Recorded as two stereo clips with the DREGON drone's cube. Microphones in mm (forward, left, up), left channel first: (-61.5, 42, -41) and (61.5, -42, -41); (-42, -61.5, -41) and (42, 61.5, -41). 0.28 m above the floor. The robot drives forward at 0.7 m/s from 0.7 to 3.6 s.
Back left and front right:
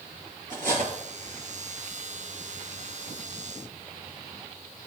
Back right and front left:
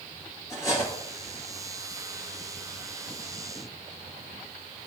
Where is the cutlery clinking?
55° right, 2.5 m; by 0.9 s 60° right, 2 m.